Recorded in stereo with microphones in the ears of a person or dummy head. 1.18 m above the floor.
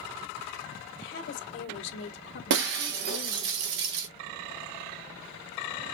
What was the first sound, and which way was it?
A woman speaking, 65° left (ahead or behind).